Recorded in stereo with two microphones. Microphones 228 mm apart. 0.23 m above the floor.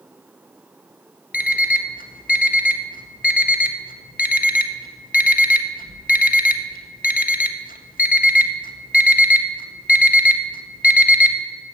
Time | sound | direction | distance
1.3 | an alarm clock | 40° left (ahead or behind) | 0.5 m